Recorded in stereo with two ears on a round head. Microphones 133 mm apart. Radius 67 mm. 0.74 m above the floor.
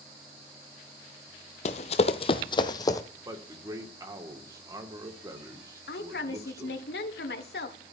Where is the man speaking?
25° right (ahead or behind), 2 m.